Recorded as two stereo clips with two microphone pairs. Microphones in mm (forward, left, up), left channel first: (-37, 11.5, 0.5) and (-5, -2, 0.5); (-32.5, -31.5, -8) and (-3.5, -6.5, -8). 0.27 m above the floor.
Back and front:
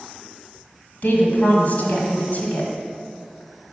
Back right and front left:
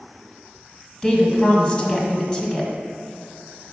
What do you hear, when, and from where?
1.0 s a woman speaking: 155° left, 1.6 m